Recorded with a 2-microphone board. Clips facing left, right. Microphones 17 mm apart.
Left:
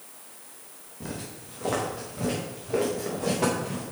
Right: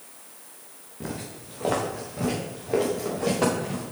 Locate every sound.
1.0 s footsteps: 80° right, 3 m